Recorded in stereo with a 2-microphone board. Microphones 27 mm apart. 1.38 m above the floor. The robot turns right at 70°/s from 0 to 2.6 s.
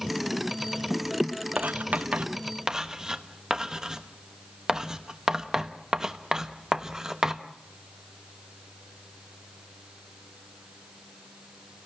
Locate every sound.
1.6 s writing: 70° right (ahead or behind), 1.1 m; by 7.4 s 20° right (ahead or behind), 1.1 m